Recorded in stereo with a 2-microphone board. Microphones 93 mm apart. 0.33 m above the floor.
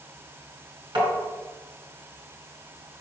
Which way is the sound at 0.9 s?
55° right (ahead or behind).